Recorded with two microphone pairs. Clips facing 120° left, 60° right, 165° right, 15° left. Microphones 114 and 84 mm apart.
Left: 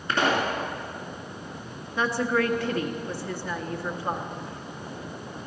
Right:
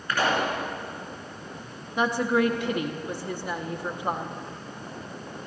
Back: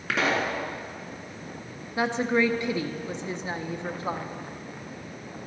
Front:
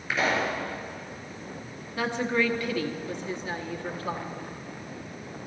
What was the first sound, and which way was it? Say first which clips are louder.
A pop: left 1 dB, back 1 dB; 175° right.